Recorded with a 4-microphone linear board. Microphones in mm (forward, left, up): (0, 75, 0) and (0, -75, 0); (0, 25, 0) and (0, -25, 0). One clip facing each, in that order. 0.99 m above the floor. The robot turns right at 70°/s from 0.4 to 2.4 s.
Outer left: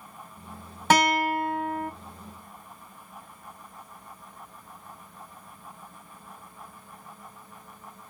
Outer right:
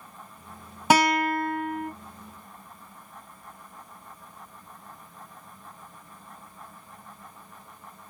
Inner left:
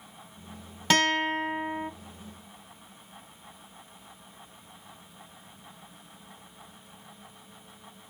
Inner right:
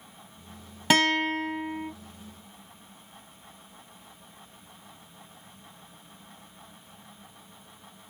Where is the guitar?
10° right, 1.2 m; by 1.9 s 60° left, 1.2 m.